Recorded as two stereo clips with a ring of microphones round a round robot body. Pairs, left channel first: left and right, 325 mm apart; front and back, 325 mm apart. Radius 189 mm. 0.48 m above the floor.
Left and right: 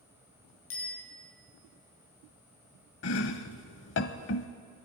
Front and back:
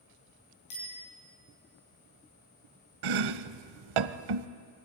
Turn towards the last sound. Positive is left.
turn(degrees=150)